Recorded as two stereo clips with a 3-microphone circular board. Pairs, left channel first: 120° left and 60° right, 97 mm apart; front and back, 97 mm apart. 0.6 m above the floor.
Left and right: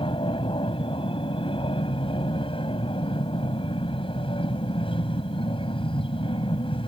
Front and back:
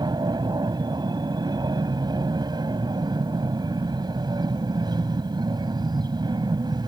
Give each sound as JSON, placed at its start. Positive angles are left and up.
{"t": 0.0, "sound": "an aircraft", "azimuth_deg": 140}